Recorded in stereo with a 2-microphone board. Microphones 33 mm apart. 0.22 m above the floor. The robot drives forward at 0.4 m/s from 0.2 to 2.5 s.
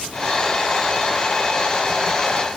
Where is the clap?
No clap in this recording.